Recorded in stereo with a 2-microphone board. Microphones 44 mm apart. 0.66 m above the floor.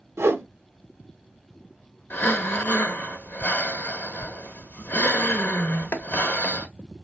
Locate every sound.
0.2 s a whoosh: 80° right, 0.6 m
2.1 s breathing: 55° left (ahead or behind), 0.8 m